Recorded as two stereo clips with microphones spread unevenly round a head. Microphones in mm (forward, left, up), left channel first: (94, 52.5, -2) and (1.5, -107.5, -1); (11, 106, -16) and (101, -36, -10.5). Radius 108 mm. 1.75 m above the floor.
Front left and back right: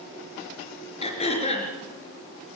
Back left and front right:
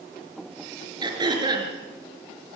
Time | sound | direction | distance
1.0 | throat clearing | 5° left | 5 m